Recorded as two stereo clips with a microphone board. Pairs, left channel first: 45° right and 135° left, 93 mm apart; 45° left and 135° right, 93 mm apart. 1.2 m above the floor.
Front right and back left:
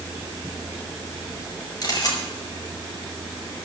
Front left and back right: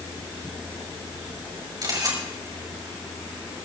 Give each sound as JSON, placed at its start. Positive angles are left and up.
{"t": 1.8, "sound": "a camera shutter", "azimuth_deg": -90, "distance_m": 6.0}